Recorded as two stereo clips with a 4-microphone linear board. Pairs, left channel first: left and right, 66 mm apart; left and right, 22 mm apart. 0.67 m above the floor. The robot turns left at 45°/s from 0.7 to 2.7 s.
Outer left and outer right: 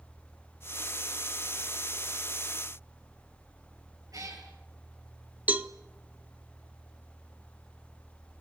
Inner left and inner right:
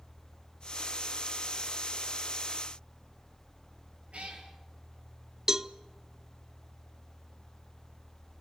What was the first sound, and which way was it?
A cat meowing, 65° right (ahead or behind).